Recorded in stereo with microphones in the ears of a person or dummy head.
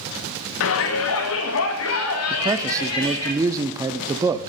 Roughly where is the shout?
Left.